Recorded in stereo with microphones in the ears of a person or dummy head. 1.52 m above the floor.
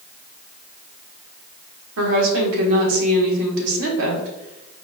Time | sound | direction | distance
2.0 | a woman speaking | 80° right | 1.4 m